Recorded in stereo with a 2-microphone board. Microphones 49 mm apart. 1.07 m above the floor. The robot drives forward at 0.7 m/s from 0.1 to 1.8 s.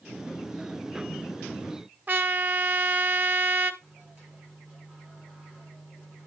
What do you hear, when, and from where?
2.1 s a trumpet: 35° right (ahead or behind), 1.1 m
3.8 s a microwave: 15° right (ahead or behind), 8.5 m